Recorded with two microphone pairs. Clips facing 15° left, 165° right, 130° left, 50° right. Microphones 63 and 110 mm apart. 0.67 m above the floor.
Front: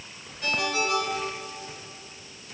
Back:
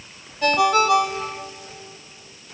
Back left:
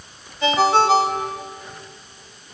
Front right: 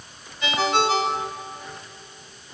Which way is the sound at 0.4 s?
Straight behind.